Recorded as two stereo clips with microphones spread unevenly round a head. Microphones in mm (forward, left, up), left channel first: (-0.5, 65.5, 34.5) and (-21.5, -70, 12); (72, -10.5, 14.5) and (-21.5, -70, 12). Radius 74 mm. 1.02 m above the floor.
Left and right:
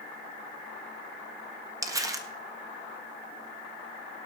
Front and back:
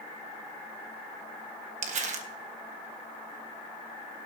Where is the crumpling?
160° right, 1.5 m.